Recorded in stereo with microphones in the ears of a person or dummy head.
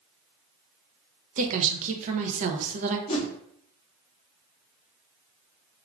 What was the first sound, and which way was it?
A woman speaking, 45° right (ahead or behind).